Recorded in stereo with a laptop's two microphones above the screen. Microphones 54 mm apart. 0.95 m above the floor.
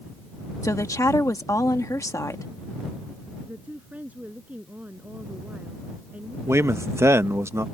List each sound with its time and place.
0.6 s a woman speaking: 70° left (ahead or behind)
3.5 s a woman speaking: 25° right (ahead or behind)
6.5 s a man speaking: 55° right (ahead or behind)